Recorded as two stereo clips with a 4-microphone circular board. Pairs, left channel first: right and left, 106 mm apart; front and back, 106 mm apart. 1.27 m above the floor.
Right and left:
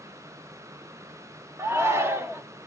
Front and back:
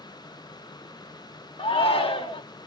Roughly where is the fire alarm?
No fire alarm in this recording.